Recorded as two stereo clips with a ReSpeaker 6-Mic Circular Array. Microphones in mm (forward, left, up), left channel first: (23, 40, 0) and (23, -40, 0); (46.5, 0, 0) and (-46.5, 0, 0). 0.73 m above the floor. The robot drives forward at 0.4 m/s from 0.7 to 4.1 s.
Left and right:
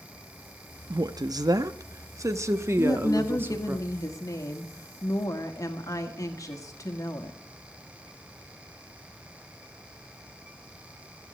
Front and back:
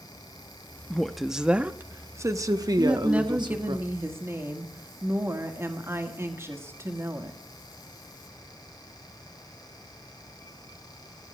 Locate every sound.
0.9 s a woman speaking: 80° right, 0.7 m; by 3.8 s 150° right, 1.3 m
2.8 s a woman speaking: 100° left, 1.5 m; by 7.4 s 125° left, 1.7 m